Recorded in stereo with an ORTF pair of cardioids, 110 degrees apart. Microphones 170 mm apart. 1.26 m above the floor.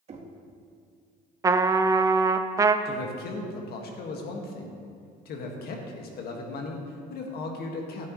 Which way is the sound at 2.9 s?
65° left.